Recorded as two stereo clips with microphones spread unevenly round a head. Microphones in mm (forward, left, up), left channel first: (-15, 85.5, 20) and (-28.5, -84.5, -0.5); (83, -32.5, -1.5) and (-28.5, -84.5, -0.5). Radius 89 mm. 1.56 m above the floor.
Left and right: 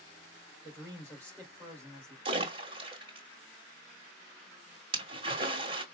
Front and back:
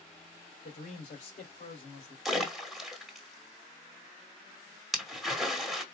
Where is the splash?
70° right, 1.4 m.